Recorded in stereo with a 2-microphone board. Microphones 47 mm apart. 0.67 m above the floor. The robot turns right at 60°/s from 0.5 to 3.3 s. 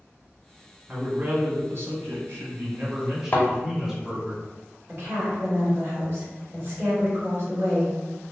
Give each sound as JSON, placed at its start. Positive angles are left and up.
{"t": 0.9, "sound": "a man speaking", "azimuth_deg": -160, "distance_m": 1.0}
{"t": 3.3, "sound": "a thud", "side_deg": 35, "distance_m": 0.8}
{"t": 4.9, "sound": "a woman speaking", "side_deg": -55, "distance_m": 1.9}